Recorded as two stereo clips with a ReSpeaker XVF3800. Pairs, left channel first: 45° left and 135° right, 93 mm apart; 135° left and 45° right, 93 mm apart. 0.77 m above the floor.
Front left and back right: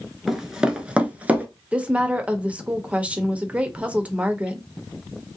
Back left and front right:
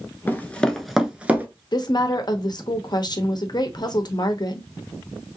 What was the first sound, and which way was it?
Running footsteps, 140° left.